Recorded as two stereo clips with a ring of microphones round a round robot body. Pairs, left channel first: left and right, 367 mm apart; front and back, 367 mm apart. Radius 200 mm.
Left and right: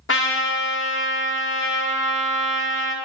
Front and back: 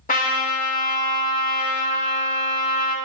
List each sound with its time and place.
0.1 s a trumpet: 55° left, 1.2 m